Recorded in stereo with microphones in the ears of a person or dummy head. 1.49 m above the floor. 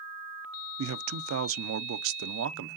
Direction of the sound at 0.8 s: 80° right.